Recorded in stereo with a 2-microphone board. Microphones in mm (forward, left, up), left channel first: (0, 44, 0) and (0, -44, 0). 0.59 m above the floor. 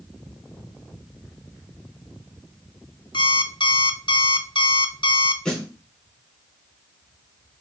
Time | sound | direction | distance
3.1 | an alarm clock | 70° left (ahead or behind) | 0.9 m
5.5 | a snare drum | 5° left (ahead or behind) | 4.5 m